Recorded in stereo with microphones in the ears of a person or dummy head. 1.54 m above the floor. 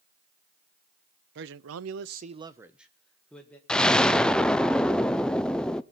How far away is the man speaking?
About 1.0 m.